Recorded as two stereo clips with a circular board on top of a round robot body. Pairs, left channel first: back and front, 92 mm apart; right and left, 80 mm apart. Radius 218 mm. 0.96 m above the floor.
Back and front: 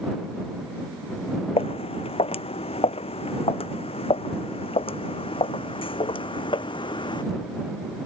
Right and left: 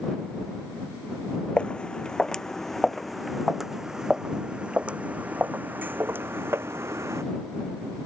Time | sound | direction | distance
1.6 | footsteps | 165° right | ?